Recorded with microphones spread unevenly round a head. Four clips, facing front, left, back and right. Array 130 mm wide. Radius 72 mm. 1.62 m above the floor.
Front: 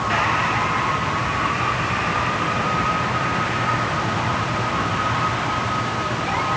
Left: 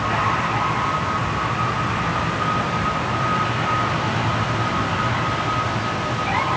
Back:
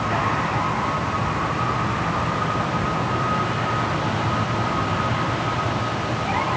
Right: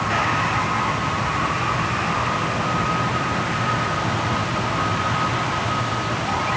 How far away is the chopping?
I don't hear chopping.